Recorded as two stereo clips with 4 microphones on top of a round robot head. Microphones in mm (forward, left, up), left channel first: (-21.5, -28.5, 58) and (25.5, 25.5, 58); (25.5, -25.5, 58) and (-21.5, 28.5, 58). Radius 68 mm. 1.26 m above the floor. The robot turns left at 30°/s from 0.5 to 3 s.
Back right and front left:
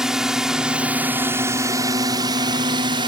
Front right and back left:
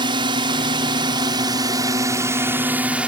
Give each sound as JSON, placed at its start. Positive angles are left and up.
{"t": 0.0, "sound": "a drone", "azimuth_deg": 135}